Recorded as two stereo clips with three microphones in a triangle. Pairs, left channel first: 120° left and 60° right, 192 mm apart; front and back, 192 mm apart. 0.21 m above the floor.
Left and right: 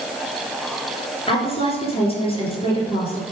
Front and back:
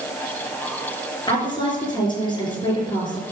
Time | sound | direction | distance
1.3 | a woman speaking | 65° left | 3.5 m